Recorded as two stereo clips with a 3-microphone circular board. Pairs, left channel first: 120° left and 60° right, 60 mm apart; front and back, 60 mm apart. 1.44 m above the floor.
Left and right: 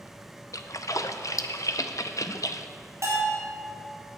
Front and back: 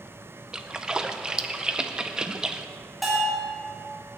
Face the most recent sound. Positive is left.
turn(degrees=-95)